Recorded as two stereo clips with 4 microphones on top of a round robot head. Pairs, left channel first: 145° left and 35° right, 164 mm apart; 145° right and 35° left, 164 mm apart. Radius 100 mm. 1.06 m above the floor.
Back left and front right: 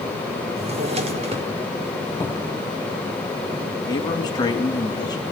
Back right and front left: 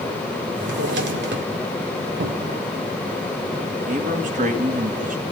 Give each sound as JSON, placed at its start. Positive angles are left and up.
{"t": 0.6, "sound": "a drawer", "azimuth_deg": 20, "distance_m": 2.0}
{"t": 2.2, "sound": "a cupboard door", "azimuth_deg": 65, "distance_m": 0.9}
{"t": 3.9, "sound": "a man speaking", "azimuth_deg": 80, "distance_m": 2.0}